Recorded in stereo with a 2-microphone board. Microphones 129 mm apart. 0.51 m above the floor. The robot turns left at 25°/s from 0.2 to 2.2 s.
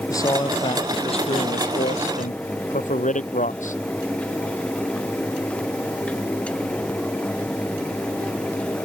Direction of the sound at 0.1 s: 155° left.